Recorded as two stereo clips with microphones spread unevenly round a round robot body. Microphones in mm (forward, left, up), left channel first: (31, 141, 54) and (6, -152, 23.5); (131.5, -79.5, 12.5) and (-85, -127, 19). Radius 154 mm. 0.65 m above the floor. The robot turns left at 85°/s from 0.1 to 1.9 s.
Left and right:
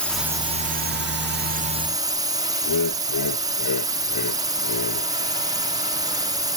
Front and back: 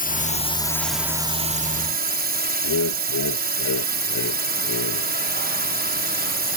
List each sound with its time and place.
0.0 s a drone: 5° right; by 6.6 s 160° right
2.6 s laughter: 50° left